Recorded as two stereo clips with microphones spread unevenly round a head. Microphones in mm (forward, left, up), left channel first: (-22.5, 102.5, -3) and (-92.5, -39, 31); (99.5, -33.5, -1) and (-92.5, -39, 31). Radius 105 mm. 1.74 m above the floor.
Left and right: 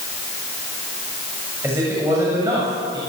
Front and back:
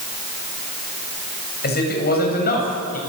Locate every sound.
1.6 s a man speaking: 40° right, 8 m; by 3.0 s 45° right, 9.5 m